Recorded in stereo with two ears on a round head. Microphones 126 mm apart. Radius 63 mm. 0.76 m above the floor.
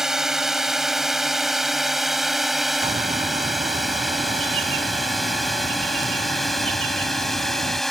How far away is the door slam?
No door slam in this recording.